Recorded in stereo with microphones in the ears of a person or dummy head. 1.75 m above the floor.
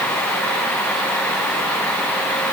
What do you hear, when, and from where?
Only background noise.